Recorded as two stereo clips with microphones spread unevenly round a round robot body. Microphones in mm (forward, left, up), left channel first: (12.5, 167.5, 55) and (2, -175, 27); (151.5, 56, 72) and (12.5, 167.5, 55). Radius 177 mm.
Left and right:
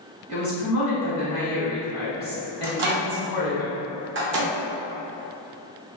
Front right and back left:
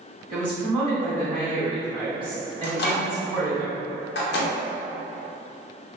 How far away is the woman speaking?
About 1.4 m.